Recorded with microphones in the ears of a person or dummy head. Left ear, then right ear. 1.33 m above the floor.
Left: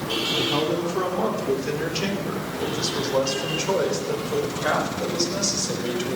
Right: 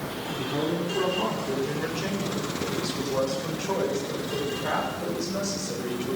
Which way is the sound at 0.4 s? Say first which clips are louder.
Left 2 dB; 40° left (ahead or behind).